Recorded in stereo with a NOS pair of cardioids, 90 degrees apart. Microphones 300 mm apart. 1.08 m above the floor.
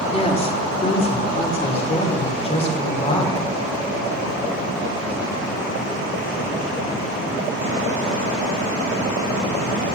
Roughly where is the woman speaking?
Ahead.